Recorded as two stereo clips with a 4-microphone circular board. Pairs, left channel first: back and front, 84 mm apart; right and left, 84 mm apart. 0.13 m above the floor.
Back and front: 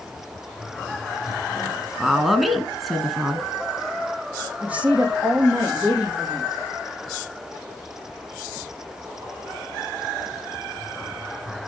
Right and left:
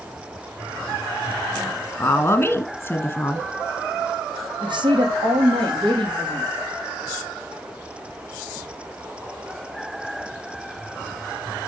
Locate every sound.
2.0 s a woman speaking: 90° right, 1.7 m
4.6 s a woman speaking: 75° left, 5 m